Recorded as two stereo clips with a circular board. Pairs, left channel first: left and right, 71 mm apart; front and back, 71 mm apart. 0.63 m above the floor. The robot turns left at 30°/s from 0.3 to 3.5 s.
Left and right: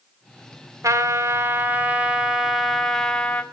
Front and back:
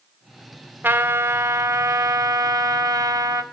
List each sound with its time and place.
0.8 s a trumpet: 125° right, 1.7 m; by 3.4 s 160° left, 1.7 m